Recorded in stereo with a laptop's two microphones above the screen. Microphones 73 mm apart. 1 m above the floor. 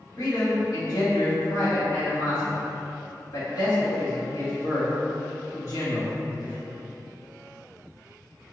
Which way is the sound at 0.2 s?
55° left (ahead or behind).